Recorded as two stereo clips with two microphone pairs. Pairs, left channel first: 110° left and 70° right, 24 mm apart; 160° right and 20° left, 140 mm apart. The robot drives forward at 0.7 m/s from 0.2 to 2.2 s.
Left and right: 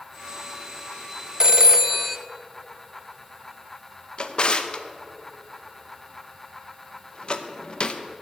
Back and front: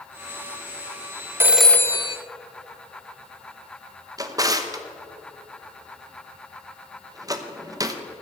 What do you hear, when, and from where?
1.4 s a phone ringing: 35° right, 0.5 m; by 2.2 s 150° right, 0.6 m
4.2 s a drawer: 80° left, 0.7 m